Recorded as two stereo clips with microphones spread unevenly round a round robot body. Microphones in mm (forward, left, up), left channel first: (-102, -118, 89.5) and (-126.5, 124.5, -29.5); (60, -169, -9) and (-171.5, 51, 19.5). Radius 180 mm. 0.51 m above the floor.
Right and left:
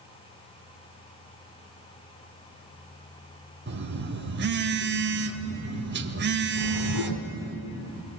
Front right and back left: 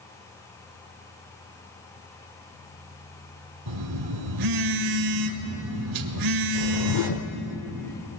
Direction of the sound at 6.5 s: 50° right.